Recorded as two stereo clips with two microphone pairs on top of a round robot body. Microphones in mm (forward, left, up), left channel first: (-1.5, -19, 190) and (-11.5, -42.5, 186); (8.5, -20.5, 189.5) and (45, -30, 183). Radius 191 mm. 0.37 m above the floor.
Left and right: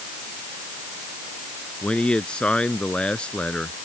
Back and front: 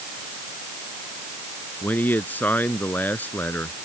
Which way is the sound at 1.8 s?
120° left.